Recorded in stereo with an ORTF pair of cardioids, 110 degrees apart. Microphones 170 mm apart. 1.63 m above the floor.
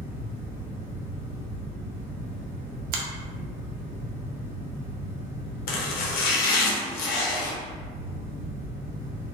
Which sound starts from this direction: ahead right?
A finger snap, at 2.9 s.